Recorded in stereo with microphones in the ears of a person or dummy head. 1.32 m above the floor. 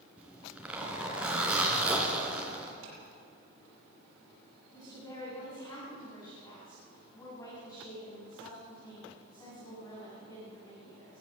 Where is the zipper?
5° right (ahead or behind), 3 m.